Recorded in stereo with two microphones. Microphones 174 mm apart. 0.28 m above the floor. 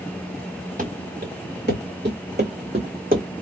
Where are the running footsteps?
55° right (ahead or behind), 1.5 m; by 3.3 s 50° right (ahead or behind), 0.9 m.